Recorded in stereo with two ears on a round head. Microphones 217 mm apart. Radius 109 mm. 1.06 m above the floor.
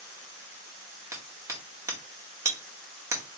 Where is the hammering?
15° right (ahead or behind), 1.6 m.